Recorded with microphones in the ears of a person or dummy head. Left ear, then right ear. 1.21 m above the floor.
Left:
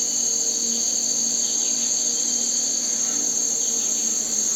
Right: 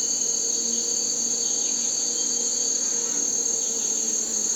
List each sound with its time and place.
0.0 s an insect: 25° left (ahead or behind), 2.0 m